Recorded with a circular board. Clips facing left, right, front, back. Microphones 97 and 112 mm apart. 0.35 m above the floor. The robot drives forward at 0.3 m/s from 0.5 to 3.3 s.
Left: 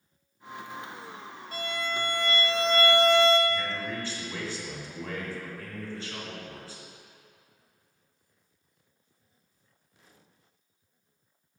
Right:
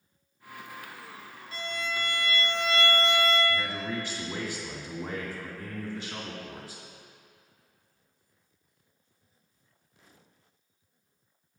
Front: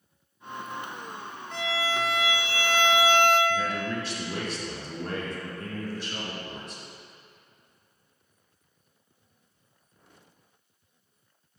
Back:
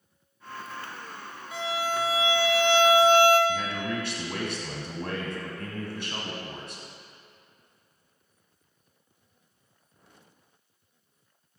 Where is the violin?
100° left, 0.7 m; by 3.4 s 135° left, 1.0 m.